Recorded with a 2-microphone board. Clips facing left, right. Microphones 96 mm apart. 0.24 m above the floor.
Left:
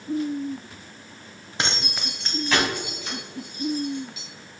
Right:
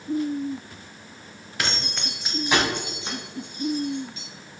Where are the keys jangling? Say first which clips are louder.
Left 1 dB; 25° left (ahead or behind), 0.7 m; by 4.2 s 35° right (ahead or behind), 3 m.